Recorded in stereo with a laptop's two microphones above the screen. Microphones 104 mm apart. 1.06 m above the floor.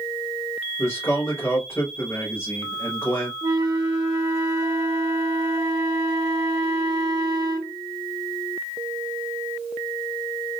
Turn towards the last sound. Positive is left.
turn(degrees=-35)  # may be behind; listen again after turning